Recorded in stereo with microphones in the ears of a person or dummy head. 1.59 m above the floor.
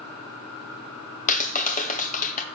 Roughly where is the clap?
Left.